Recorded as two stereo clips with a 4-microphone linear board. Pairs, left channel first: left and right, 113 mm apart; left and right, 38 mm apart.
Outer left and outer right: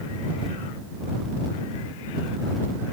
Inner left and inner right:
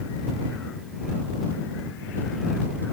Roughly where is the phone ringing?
I don't hear a phone ringing.